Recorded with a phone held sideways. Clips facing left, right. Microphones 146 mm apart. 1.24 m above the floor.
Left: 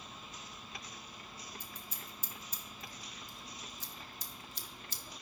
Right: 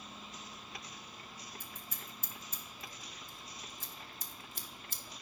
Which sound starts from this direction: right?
Scissors, at 1.6 s.